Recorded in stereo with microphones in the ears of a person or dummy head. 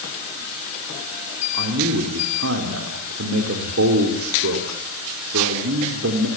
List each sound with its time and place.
1.5 s a man speaking: 75° right (ahead or behind), 4 m